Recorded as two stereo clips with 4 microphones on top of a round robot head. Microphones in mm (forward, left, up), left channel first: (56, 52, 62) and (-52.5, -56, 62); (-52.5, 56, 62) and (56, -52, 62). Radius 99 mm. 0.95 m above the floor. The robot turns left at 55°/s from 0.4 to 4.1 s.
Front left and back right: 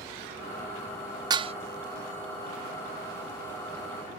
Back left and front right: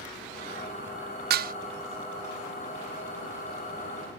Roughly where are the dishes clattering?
Right.